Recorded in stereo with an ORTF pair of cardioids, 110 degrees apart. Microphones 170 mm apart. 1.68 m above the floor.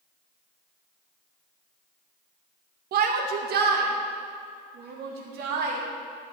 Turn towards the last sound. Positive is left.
turn(degrees=-75)